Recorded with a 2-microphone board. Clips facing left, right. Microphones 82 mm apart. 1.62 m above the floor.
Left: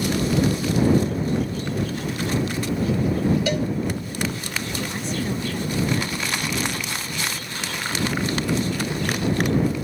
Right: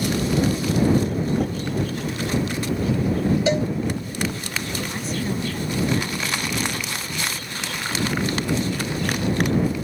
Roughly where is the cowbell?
Right.